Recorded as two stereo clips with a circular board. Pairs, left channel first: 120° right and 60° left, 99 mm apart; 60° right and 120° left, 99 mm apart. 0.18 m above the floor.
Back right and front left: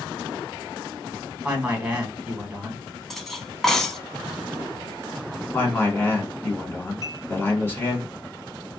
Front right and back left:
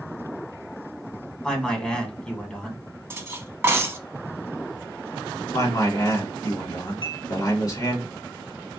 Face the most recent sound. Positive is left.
turn(degrees=-75)